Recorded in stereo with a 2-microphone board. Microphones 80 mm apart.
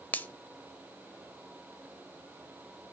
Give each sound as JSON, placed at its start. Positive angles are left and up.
{"t": 0.1, "sound": "a finger snap", "side_deg": 20, "distance_m": 0.8}